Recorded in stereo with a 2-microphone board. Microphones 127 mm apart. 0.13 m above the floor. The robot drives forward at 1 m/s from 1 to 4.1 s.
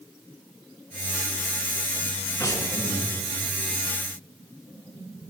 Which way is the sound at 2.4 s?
30° left (ahead or behind).